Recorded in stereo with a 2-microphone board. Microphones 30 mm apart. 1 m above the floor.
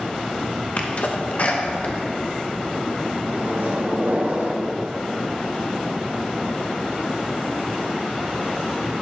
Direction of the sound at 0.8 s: 50° left (ahead or behind).